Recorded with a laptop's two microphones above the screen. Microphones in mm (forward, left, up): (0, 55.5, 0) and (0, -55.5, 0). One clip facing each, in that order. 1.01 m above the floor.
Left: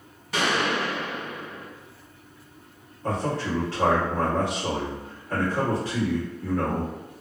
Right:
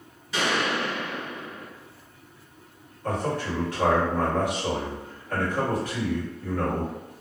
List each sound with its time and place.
0.3 s a gunshot: 60° left (ahead or behind), 1.1 m
3.0 s a man speaking: 30° left (ahead or behind), 1.4 m